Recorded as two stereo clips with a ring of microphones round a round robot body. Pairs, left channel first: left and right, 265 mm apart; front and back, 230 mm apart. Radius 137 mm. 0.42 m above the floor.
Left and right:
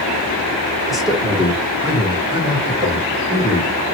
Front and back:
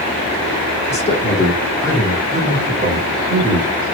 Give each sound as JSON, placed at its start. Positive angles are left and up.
{"t": 0.9, "sound": "a man speaking", "azimuth_deg": 0, "distance_m": 1.4}